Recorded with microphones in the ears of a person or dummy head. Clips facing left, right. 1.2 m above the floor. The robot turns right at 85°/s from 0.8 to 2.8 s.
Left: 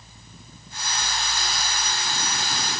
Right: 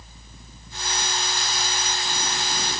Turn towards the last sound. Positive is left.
No sound to turn to.